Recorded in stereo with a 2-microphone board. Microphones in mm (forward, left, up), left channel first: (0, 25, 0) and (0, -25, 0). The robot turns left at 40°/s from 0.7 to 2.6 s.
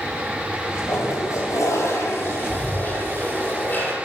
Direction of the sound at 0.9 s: 110° left.